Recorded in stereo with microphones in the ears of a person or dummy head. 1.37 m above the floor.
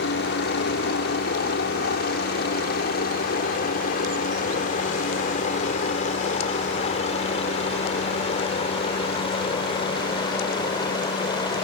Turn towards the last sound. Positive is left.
turn(degrees=25)  # may be behind; listen again after turning